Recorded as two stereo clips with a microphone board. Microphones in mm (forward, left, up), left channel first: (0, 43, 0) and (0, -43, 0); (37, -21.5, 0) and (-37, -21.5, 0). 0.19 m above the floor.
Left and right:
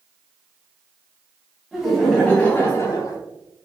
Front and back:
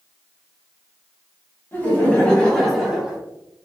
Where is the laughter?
10° right, 1.6 m; by 3.2 s 100° left, 1.8 m.